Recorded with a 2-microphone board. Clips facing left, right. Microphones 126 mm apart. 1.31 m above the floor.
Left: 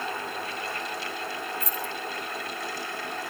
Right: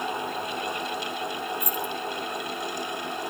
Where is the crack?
I don't hear a crack.